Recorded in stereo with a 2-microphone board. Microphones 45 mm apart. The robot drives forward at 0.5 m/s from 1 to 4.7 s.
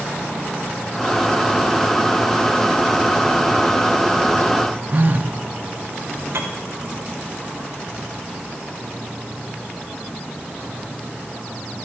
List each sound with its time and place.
4.9 s a phone buzzing: 45° right (ahead or behind), 0.9 m
6.3 s a piano: 70° right (ahead or behind), 3 m